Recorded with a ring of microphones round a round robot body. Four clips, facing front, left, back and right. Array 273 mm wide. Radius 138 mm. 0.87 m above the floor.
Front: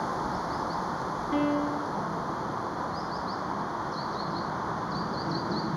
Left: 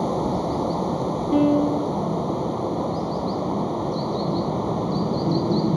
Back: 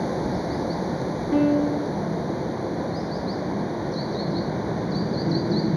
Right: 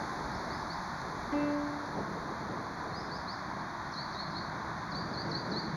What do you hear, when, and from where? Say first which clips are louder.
0.0 s running water: left 14 dB, back 5 dB; 120° left
1.3 s a piano: left 14 dB, back 7 dB; 120° left